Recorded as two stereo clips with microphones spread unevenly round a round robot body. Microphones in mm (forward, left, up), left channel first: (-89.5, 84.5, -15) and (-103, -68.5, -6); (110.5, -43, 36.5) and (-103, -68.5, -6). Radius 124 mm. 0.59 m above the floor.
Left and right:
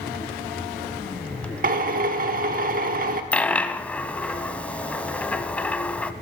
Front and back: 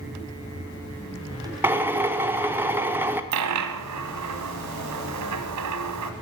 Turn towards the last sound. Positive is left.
turn(degrees=165)